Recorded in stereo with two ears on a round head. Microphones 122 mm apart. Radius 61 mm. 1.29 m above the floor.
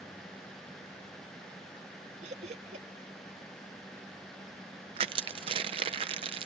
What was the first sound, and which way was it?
Laughter, 55° right (ahead or behind).